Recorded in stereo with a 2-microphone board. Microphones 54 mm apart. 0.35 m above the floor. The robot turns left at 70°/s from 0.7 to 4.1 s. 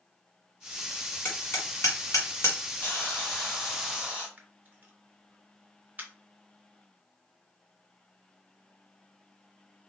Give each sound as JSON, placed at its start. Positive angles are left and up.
{"t": 1.2, "sound": "hammering", "side_deg": 35, "distance_m": 1.4}
{"t": 2.8, "sound": "a hiss", "azimuth_deg": 60, "distance_m": 1.8}
{"t": 4.4, "sound": "a camera shutter", "side_deg": -35, "distance_m": 0.7}